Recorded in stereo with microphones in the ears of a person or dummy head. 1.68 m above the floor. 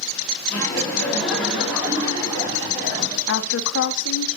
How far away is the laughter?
About 3.5 m.